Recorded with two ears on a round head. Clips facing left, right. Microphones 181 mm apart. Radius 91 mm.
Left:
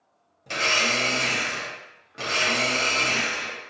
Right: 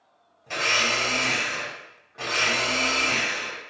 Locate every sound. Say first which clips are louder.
0.5 s a blender: left 1 dB; 45° left (ahead or behind), 1.0 m